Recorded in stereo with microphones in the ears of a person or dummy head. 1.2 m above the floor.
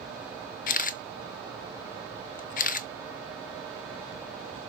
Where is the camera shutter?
45° left (ahead or behind), 0.8 m.